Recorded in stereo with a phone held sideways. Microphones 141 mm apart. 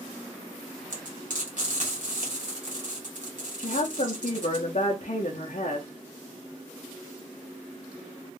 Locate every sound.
0.9 s frying: 65° right (ahead or behind), 1.7 m
3.6 s a woman speaking: 60° left (ahead or behind), 0.7 m